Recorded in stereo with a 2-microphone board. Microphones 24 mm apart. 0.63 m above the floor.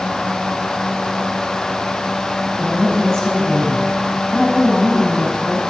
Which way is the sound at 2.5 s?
20° left (ahead or behind).